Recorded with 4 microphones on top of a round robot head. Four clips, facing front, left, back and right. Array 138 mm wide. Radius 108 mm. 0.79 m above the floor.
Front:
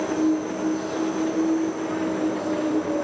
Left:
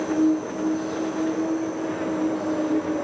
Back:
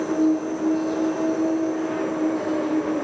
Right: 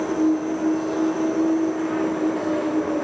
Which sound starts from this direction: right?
An insect, at 0.0 s.